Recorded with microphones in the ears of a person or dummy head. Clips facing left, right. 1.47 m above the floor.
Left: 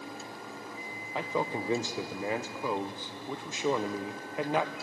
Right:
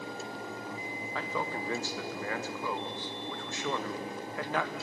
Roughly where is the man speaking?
Centre.